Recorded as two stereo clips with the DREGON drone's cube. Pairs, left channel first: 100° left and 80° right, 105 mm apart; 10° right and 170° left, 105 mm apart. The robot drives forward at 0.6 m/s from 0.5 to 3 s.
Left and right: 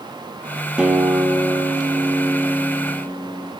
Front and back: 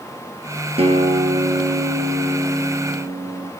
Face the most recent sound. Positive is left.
turn(degrees=-165)